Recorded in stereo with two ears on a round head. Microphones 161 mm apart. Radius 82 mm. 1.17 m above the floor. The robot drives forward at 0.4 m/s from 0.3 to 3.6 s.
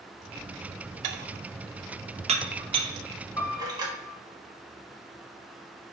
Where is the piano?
20° left (ahead or behind), 1.8 m; by 4.2 s 15° left (ahead or behind), 1.9 m.